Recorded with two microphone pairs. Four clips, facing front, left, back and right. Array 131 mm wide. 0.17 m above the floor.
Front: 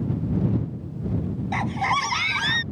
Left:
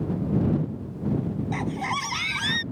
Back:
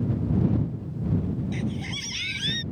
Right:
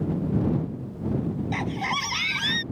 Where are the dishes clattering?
No dishes clattering in this recording.